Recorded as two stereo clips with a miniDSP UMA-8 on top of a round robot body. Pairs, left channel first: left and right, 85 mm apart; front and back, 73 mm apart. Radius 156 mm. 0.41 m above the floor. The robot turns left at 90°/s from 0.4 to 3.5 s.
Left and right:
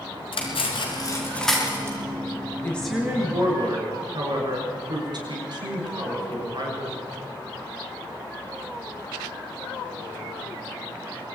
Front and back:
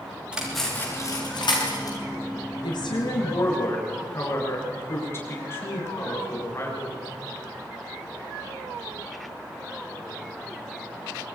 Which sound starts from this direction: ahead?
A woman speaking, at 2.6 s.